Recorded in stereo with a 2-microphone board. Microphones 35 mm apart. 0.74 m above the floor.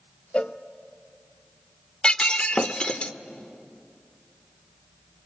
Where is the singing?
I don't hear singing.